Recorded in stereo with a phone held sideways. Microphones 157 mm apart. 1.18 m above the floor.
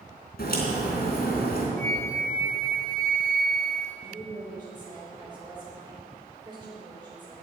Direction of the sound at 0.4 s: 75° left (ahead or behind).